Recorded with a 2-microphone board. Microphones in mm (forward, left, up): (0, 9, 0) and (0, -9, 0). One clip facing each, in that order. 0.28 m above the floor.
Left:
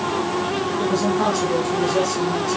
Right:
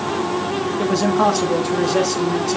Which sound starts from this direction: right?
A man speaking, at 0.8 s.